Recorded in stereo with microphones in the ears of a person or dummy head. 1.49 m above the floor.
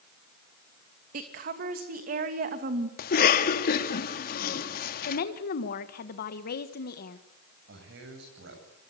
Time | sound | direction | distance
1.1 | a woman speaking | 50° right (ahead or behind) | 2.5 m
3.0 | a cough | 50° left (ahead or behind) | 2.5 m
5.1 | a woman speaking | 50° left (ahead or behind) | 1.5 m
7.7 | a man speaking | 70° right (ahead or behind) | 8.5 m